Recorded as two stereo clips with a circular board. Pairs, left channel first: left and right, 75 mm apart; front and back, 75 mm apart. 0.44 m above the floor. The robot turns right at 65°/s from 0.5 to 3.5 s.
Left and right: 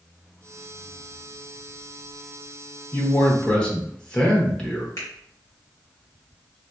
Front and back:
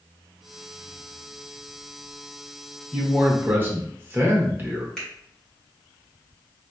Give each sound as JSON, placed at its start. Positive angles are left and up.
{"t": 2.9, "sound": "a man speaking", "azimuth_deg": 115, "distance_m": 0.9}
{"t": 5.0, "sound": "a finger snap", "azimuth_deg": 85, "distance_m": 1.6}